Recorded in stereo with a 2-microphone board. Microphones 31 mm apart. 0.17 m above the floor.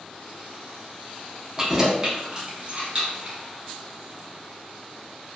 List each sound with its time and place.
1.6 s keys jangling: 20° right (ahead or behind), 0.7 m; by 3.4 s 40° right (ahead or behind), 1.5 m